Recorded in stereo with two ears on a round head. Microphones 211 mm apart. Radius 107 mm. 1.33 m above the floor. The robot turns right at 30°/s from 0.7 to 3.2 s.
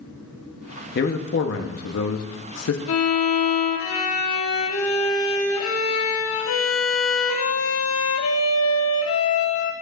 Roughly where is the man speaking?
Ahead left.